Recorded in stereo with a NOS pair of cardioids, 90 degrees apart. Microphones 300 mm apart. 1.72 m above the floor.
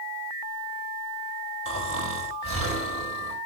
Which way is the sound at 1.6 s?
50° right.